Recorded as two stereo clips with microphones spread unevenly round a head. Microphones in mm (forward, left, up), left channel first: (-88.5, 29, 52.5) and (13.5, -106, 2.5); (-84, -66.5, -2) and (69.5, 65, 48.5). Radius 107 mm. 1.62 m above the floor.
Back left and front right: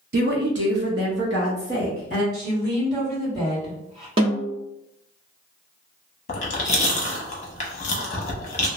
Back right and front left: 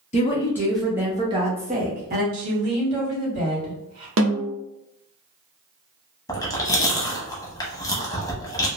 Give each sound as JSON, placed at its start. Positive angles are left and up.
{"t": 0.1, "sound": "a woman speaking", "azimuth_deg": -80, "distance_m": 0.7}
{"t": 2.3, "sound": "a woman speaking", "azimuth_deg": 20, "distance_m": 2.0}
{"t": 4.2, "sound": "a snare drum", "azimuth_deg": 5, "distance_m": 0.7}
{"t": 6.3, "sound": "chewing", "azimuth_deg": 140, "distance_m": 0.7}